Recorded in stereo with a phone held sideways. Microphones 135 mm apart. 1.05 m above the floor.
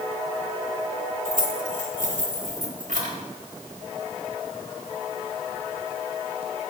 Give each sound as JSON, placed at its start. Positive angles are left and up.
{"t": 1.2, "sound": "keys jangling", "side_deg": -80, "distance_m": 3.5}